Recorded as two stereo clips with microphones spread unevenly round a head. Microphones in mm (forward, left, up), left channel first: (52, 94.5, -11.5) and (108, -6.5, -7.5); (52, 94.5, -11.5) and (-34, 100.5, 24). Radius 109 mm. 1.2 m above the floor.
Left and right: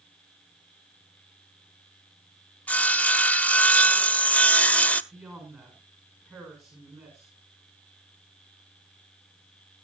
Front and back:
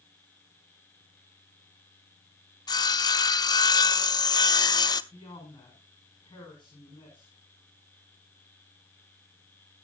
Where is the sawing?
45° left, 0.9 m.